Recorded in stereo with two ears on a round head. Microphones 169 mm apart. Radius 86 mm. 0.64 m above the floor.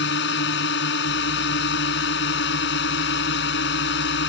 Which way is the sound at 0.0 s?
55° left (ahead or behind).